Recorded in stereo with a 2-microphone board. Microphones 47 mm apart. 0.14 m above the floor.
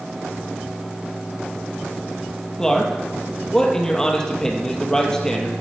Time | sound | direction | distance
2.6 | a man speaking | 10° left (ahead or behind) | 3 m